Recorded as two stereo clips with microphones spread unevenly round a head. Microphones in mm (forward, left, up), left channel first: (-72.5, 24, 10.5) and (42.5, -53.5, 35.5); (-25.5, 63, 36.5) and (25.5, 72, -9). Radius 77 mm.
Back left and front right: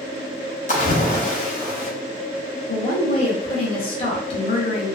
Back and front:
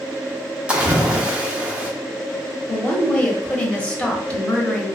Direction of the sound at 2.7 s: 105° left.